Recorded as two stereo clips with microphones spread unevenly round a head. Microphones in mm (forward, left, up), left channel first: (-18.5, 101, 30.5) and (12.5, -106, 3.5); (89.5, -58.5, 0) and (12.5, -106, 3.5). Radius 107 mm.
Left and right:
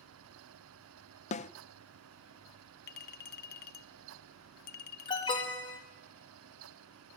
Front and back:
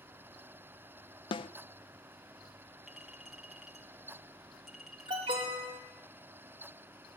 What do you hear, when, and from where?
1.3 s a snare drum: 40° left, 0.6 m
2.9 s a clink: 125° left, 0.6 m
5.1 s an alarm: 170° left, 3.5 m